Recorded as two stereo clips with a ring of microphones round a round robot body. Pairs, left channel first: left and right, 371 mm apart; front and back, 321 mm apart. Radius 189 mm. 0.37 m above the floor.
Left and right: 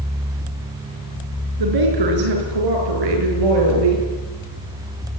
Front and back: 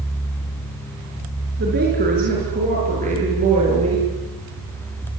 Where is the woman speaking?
115° right, 6 m; by 4.0 s 105° right, 9 m.